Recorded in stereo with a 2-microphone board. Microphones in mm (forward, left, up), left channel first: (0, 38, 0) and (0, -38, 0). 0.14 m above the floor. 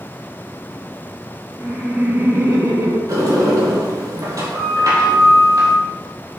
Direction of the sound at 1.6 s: 15° right (ahead or behind).